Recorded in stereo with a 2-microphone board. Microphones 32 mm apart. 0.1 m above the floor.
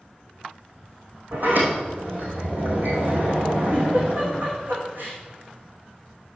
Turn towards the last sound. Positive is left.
turn(degrees=-70)  # may be behind; listen again after turning